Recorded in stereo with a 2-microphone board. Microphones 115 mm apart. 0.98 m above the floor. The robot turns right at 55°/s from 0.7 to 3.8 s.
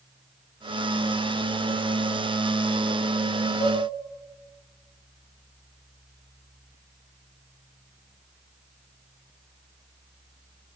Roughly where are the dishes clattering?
Left.